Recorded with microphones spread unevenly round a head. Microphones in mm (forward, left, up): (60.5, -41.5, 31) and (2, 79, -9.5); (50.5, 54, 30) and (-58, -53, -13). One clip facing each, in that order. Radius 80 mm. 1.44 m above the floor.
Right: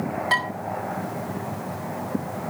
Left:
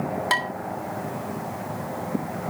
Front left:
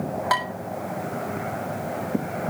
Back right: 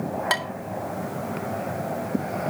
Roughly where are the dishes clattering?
Behind.